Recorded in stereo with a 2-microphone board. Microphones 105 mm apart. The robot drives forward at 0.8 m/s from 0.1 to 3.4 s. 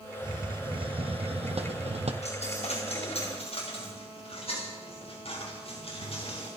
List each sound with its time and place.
0.2 s a hiss: 45° right (ahead or behind), 2 m; by 2.1 s 75° right (ahead or behind), 1.5 m
2.2 s a dropped coin: 70° left (ahead or behind), 4 m; by 6.5 s 60° left (ahead or behind), 4.5 m